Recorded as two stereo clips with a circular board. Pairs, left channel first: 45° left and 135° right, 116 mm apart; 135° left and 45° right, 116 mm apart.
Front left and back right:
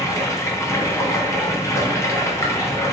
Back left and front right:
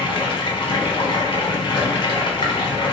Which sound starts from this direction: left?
Running water, at 0.0 s.